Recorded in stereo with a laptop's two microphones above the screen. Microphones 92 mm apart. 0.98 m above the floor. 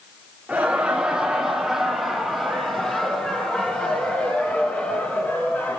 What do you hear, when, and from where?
0.5 s laughter: 15° right (ahead or behind), 2.5 m; by 5.8 s 25° left (ahead or behind), 4 m